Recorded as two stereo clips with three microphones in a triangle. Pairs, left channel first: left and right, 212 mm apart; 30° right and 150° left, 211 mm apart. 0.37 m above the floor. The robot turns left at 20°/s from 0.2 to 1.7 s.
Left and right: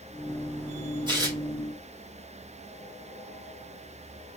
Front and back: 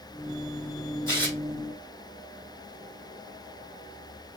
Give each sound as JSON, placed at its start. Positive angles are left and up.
{"t": 1.1, "sound": "tearing paper", "azimuth_deg": -145, "distance_m": 1.4}